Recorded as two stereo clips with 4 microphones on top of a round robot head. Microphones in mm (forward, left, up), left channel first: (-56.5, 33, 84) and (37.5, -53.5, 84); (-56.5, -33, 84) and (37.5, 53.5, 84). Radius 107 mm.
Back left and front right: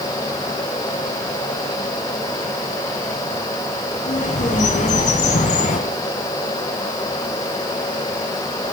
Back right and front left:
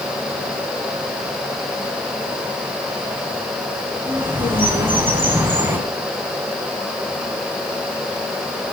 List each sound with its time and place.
4.0 s a bird: 115° left, 5 m